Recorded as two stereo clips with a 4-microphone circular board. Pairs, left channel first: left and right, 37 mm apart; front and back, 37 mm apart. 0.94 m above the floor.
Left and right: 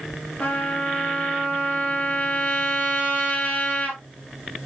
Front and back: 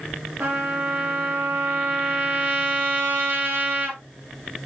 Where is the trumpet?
140° left, 2.5 m.